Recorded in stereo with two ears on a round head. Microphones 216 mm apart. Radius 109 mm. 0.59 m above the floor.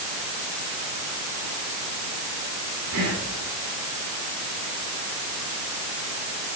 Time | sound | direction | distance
2.9 | whispering | 75° right (ahead or behind) | 8 m